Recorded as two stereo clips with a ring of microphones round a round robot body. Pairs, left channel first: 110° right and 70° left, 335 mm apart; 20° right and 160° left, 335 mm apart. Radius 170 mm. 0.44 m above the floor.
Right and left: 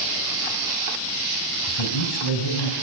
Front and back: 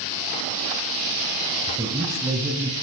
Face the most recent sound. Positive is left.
turn(degrees=-120)